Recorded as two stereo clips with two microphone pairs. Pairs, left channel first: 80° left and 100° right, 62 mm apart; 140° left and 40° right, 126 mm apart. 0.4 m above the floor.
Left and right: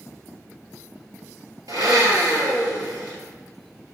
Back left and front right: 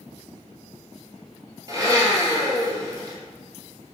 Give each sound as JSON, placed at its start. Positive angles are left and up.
{"t": 1.7, "sound": "a blender", "azimuth_deg": -100, "distance_m": 2.5}